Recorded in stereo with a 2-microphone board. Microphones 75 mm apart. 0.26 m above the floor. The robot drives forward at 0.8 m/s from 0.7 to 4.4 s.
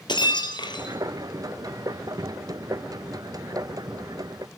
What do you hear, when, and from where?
0.1 s breaking glass: 85° left, 1.9 m; by 1.0 s 80° left, 1.9 m